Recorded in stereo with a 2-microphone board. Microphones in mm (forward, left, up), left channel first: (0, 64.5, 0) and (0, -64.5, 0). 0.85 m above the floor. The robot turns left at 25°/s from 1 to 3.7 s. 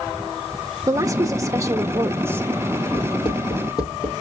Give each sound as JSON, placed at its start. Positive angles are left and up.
{"t": 0.9, "sound": "a woman speaking", "side_deg": -25, "distance_m": 0.6}
{"t": 2.9, "sound": "writing", "side_deg": 50, "distance_m": 4.0}